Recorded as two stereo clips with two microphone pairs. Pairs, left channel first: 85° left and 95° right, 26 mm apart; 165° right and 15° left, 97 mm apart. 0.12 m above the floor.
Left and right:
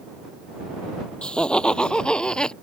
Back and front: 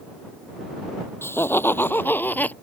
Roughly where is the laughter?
Behind left.